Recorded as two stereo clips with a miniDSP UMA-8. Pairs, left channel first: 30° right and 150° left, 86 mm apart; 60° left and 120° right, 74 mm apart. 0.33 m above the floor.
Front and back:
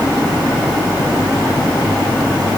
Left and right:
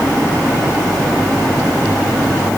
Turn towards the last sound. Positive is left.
No sound to turn to.